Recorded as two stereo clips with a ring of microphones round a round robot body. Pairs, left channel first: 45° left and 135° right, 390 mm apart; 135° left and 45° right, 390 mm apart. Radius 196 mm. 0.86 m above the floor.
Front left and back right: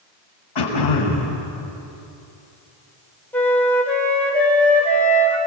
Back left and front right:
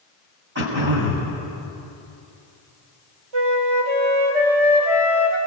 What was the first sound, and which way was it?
Throat clearing, 15° left.